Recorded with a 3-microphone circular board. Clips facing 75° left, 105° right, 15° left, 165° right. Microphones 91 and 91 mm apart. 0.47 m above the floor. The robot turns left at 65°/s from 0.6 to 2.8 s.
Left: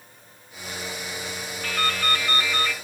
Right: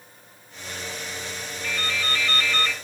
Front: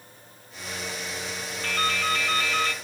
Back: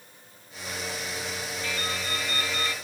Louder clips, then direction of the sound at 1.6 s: Left 4 dB, front 8 dB; 55° left.